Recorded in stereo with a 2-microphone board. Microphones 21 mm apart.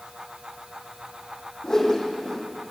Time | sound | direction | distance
1.6 | a whoosh | 25° left (ahead or behind) | 4 m